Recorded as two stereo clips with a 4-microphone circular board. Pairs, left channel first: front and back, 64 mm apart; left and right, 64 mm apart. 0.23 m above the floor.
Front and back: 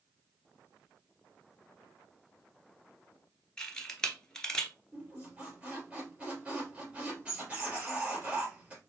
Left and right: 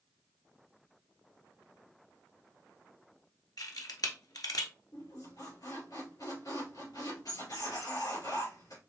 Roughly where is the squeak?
Left.